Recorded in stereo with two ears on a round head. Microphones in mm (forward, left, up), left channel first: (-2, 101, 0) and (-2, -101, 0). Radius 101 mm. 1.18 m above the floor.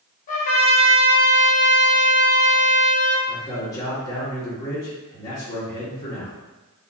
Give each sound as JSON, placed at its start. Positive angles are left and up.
{"t": 0.3, "sound": "a trumpet", "side_deg": 35, "distance_m": 1.5}
{"t": 3.3, "sound": "a man speaking", "side_deg": 15, "distance_m": 1.4}